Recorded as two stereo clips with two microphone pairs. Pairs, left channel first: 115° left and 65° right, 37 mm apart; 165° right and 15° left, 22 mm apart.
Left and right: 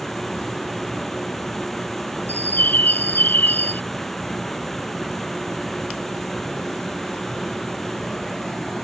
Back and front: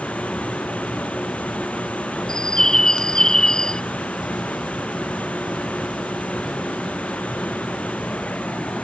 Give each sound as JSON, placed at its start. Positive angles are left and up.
{"t": 0.0, "sound": "running water", "azimuth_deg": -165}
{"t": 2.3, "sound": "a bird", "azimuth_deg": 135}